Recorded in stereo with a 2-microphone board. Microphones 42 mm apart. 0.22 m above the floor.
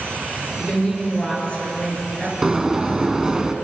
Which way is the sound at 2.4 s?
15° right (ahead or behind).